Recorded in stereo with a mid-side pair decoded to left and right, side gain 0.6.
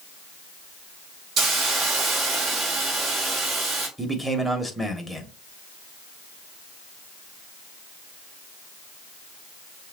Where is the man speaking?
5° right, 1.6 m.